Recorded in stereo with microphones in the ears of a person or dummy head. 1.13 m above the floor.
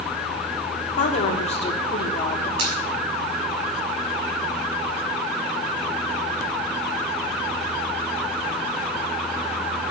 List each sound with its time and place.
1.0 s a woman speaking: 40° left (ahead or behind), 3.5 m; by 2.5 s 15° left (ahead or behind), 2.5 m
2.6 s a finger snap: 75° right (ahead or behind), 6 m